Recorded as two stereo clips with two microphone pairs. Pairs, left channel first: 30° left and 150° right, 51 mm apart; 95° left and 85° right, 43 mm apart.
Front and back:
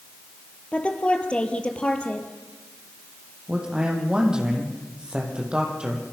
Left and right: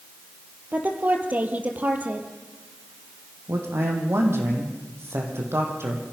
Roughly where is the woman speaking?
Ahead right.